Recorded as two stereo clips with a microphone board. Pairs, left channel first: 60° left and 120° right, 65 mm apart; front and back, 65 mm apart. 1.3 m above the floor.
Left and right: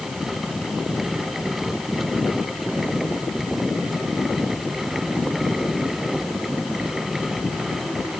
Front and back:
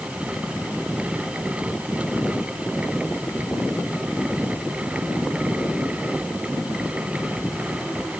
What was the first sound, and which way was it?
Only background noise.